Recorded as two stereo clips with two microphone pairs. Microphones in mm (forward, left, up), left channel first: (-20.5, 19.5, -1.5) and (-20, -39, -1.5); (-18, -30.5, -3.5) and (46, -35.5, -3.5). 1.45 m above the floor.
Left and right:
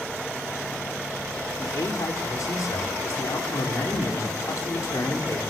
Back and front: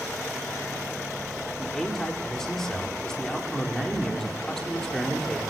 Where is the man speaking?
95° left, 4.5 m.